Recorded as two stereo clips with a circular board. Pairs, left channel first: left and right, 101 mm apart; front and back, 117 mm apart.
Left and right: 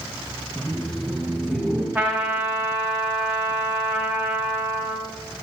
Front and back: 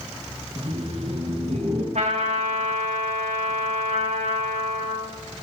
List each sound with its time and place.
0.6 s laughter: 170° left, 1.7 m; by 1.9 s 175° right, 3 m
1.9 s a trumpet: 170° right, 3 m